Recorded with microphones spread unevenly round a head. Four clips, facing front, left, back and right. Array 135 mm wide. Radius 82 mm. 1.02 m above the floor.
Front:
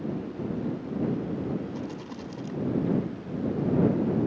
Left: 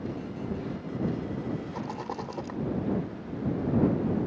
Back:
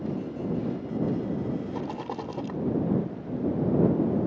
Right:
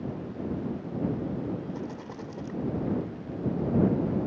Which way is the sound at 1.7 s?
165° left.